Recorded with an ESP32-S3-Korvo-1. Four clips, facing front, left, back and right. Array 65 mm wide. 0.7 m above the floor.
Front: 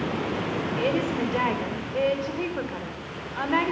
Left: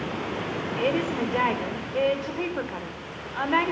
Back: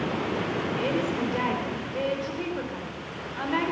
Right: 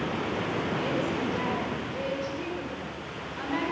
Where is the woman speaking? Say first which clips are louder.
Left 3 dB, front 3 dB; 60° left, 3 m.